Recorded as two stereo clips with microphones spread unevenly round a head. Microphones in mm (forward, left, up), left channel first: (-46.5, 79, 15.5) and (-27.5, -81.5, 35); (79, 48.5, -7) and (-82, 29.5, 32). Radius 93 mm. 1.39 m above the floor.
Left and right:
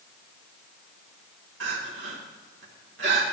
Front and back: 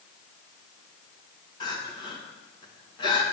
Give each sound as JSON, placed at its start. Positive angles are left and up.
{"t": 1.6, "sound": "crying", "azimuth_deg": -65, "distance_m": 1.9}